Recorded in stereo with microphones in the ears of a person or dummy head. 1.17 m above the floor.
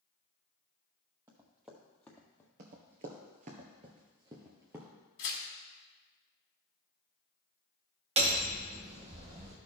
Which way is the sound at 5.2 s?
45° left (ahead or behind).